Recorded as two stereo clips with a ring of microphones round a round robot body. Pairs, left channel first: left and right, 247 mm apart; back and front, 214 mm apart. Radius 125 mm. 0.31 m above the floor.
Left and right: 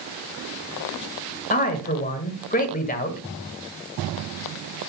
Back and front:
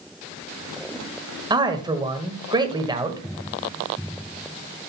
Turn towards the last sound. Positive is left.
turn(degrees=60)